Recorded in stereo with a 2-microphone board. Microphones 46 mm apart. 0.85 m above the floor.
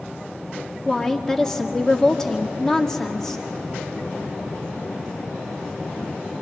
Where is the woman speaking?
10° left (ahead or behind), 2 m.